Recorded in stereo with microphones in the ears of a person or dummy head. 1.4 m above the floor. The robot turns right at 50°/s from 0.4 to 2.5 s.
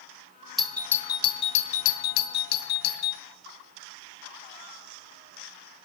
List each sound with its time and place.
0.6 s a doorbell: centre (ahead or behind), 0.9 m; by 3.2 s 45° left (ahead or behind), 0.9 m